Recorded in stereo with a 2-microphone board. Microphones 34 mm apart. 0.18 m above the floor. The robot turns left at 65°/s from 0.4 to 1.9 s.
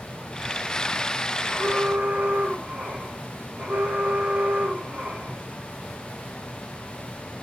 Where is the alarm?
75° right (ahead or behind), 7.5 m; by 5.4 s 50° right (ahead or behind), 7.5 m.